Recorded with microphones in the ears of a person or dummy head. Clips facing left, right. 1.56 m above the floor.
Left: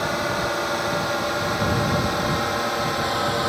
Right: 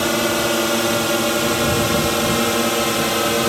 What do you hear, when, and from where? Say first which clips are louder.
0.0 s a drone: right 6 dB; 45° right (ahead or behind)